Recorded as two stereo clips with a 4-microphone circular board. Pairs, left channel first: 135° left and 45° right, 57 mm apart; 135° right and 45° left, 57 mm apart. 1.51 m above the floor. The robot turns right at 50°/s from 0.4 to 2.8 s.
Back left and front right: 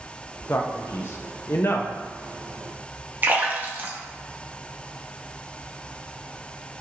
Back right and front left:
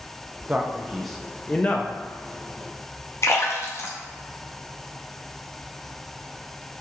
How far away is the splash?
About 0.7 m.